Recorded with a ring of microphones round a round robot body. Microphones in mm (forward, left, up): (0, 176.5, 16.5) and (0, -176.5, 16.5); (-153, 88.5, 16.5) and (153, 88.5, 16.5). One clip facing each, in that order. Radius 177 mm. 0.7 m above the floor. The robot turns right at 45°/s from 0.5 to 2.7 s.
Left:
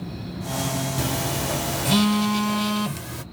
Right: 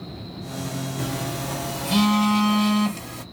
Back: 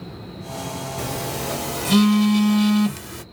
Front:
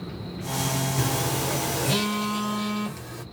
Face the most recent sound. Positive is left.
turn(degrees=140)